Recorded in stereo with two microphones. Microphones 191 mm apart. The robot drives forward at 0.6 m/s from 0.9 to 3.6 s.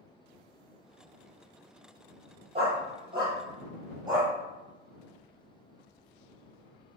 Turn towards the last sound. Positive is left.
turn(degrees=-20)  # may be behind; listen again after turning